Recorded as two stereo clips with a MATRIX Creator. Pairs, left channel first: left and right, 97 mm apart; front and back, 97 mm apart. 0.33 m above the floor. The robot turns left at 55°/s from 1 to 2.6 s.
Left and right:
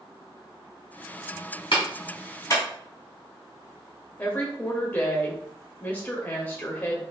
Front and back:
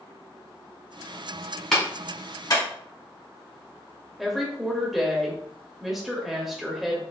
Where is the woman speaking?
95° left, 0.9 m.